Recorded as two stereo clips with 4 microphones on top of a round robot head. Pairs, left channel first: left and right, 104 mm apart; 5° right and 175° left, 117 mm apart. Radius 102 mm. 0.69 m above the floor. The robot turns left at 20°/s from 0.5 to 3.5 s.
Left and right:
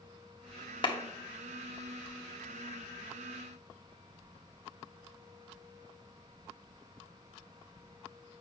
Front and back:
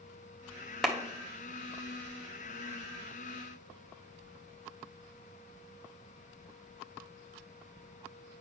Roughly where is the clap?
Left.